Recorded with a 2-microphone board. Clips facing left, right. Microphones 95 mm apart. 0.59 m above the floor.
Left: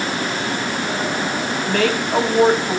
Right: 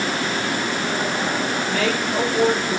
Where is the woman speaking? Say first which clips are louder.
Left 7 dB; 75° left (ahead or behind), 5 m.